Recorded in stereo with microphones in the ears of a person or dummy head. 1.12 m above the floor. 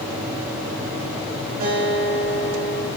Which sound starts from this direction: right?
A guitar, at 1.6 s.